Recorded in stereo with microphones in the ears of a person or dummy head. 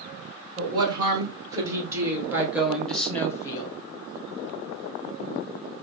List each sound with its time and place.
0.6 s a woman speaking: 30° right (ahead or behind), 2.0 m; by 3.8 s 30° left (ahead or behind), 0.9 m